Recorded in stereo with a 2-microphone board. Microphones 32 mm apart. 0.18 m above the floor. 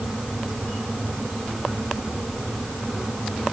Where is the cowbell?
I don't hear a cowbell.